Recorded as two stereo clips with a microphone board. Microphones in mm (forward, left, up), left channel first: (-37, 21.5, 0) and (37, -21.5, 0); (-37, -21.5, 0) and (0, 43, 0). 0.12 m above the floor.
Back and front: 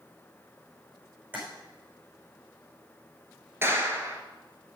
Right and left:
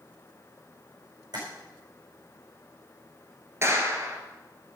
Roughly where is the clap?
Ahead.